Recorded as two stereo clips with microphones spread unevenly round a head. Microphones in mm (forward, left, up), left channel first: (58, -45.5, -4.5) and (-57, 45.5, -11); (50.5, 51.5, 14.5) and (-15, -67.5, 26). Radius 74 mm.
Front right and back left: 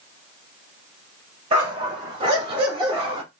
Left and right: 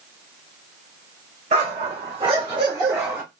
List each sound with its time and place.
1.5 s a dog barking: 165° right, 1.8 m; by 3.2 s straight behind, 1.0 m